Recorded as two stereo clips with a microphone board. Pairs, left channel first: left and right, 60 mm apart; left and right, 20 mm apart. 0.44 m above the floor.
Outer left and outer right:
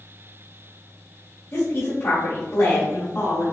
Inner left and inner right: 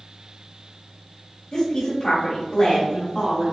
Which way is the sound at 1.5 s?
55° left (ahead or behind).